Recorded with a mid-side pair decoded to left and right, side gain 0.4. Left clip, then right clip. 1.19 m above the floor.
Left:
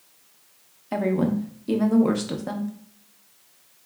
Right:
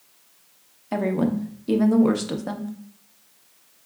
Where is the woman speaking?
10° right, 0.8 m.